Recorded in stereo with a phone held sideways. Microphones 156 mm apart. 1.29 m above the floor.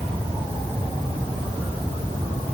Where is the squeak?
I don't hear a squeak.